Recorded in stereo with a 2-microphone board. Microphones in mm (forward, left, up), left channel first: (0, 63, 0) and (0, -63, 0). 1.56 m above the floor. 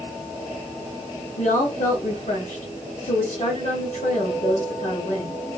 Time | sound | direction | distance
1.4 | a woman speaking | 85° left | 2.0 m